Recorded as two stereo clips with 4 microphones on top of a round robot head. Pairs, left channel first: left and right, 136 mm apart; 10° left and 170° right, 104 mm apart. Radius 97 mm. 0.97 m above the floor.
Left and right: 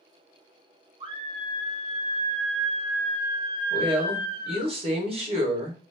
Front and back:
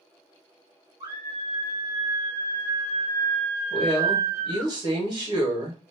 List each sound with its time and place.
1.0 s a scream: 140° right, 1.4 m; by 4.7 s 10° right, 1.3 m
3.7 s a woman speaking: 130° right, 1.4 m